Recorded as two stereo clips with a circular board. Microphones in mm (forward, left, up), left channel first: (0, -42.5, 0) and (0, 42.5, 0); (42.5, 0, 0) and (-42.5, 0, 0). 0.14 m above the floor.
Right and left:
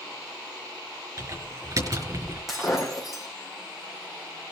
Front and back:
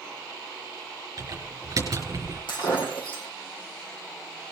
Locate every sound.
1.2 s typing on a keyboard: 135° left, 5.5 m
2.5 s breaking glass: 5° left, 4.5 m